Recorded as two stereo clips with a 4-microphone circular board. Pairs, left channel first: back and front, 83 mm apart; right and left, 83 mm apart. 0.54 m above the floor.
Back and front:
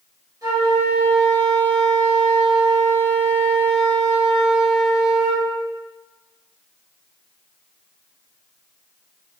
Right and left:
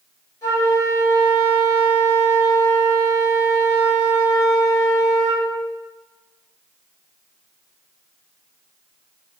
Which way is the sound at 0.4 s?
45° right.